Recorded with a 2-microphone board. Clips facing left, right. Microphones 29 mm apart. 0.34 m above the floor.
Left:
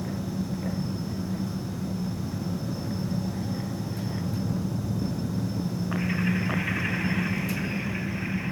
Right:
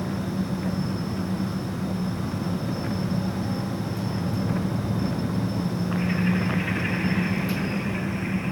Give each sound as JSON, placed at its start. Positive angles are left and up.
{"t": 0.0, "sound": "an engine running", "side_deg": -65}